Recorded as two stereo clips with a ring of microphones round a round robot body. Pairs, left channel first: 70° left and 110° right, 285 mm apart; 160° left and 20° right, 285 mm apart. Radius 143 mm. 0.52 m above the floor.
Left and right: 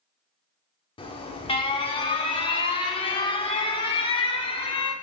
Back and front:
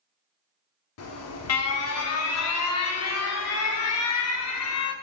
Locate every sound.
1.0 s an alarm: 135° left, 0.7 m